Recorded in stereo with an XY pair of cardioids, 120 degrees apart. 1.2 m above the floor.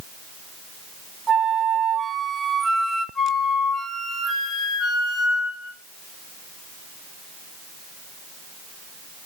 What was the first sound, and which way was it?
A flute, 30° right.